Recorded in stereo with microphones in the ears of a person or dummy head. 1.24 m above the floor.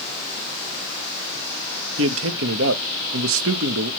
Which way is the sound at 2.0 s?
70° right (ahead or behind).